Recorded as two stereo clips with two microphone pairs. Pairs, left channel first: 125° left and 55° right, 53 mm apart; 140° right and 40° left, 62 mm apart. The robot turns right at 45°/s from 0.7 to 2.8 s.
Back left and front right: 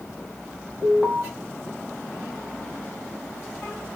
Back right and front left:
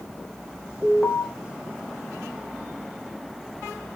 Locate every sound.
0.8 s an alarm: 60° right, 1.7 m; by 1.2 s 40° right, 1.7 m